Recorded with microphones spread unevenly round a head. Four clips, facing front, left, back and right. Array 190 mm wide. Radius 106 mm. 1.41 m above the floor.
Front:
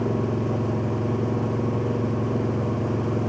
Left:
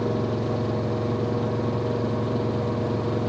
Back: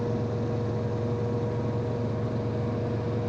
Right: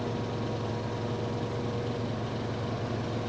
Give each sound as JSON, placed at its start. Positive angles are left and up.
{"t": 0.0, "sound": "an engine running", "azimuth_deg": 35}